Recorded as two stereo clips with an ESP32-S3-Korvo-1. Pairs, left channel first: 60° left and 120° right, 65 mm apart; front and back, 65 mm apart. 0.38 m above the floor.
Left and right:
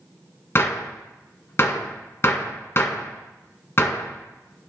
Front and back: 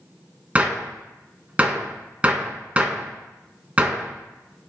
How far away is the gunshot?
About 0.9 m.